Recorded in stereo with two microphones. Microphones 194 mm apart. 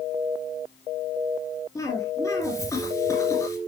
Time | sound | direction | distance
1.8 | a cough | 15° left (ahead or behind) | 2 m